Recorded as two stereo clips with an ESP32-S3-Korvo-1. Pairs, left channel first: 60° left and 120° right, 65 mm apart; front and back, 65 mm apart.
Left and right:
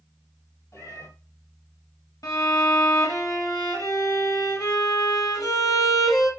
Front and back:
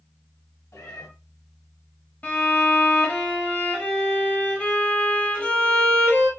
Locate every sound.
0.7 s a cat meowing: 25° left, 2.5 m
2.2 s a violin: 65° left, 1.6 m